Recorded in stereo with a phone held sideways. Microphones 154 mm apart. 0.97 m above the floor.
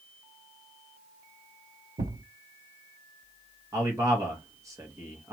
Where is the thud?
70° right (ahead or behind), 0.7 m.